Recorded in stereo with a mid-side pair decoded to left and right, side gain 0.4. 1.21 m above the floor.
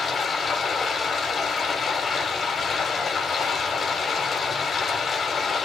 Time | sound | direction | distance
0.0 | running water | 45° left | 7 m